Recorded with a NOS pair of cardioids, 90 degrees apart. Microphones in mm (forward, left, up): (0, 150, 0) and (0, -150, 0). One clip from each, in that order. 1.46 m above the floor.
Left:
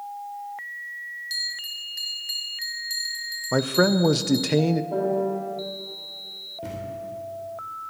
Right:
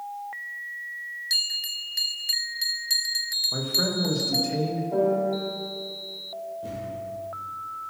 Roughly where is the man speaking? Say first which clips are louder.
Left 4 dB; ahead left.